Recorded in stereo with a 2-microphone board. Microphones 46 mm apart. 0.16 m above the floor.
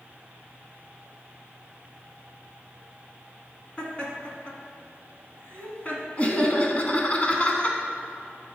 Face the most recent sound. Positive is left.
turn(degrees=30)  # may be behind; listen again after turning